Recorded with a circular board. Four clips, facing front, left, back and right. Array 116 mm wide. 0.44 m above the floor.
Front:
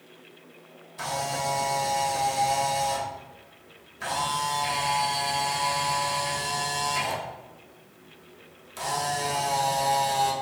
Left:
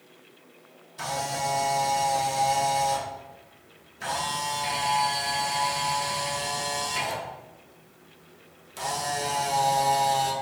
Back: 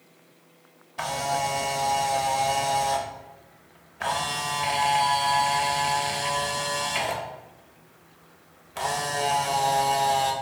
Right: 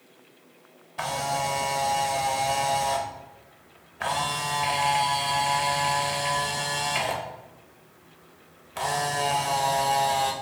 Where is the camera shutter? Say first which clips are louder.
Right 2 dB, back 3 dB; 125° right, 0.6 m.